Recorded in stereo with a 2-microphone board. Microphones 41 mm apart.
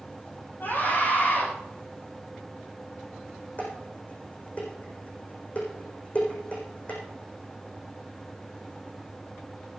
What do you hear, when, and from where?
0.6 s a scream: 60° left (ahead or behind), 9 m
3.6 s dishes clattering: 35° left (ahead or behind), 7 m